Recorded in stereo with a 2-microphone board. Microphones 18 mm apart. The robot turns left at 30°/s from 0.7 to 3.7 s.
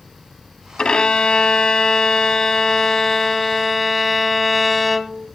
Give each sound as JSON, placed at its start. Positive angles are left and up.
{"t": 0.8, "sound": "a violin", "azimuth_deg": 90, "distance_m": 0.7}